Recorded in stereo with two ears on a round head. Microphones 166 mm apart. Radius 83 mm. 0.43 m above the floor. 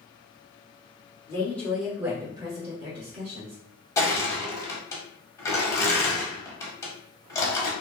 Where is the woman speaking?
20° left (ahead or behind), 1.0 m; by 3.6 s 50° right (ahead or behind), 1.5 m.